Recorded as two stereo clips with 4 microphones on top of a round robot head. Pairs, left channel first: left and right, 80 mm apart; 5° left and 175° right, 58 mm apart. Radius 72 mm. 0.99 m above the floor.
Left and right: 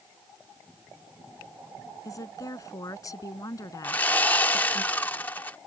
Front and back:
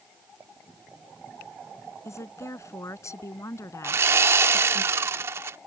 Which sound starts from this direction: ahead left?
A woman speaking, at 2.0 s.